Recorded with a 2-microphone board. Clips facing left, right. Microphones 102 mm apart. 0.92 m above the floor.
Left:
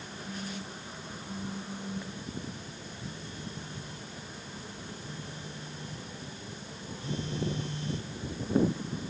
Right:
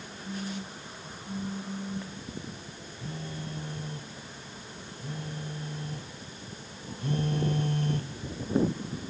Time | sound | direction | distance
0.2 | a phone buzzing | 20° right (ahead or behind) | ?
3.0 | a phone buzzing | 60° right (ahead or behind) | ?